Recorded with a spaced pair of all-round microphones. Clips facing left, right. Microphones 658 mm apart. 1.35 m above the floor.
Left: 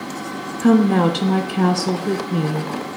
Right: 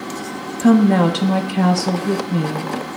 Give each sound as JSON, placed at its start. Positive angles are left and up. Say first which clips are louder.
{"t": 0.6, "sound": "a woman speaking", "louder": "right 1 dB", "side_deg": -10, "distance_m": 0.6}